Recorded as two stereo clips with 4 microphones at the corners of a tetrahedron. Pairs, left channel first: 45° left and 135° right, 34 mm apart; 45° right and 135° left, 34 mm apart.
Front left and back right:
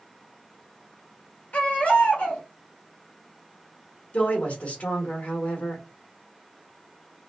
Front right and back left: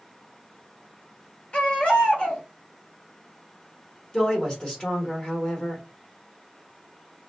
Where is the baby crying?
5° left, 1.3 m.